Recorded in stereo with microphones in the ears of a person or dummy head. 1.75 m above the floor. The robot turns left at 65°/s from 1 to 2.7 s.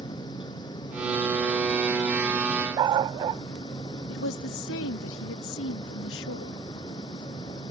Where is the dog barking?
30° right (ahead or behind).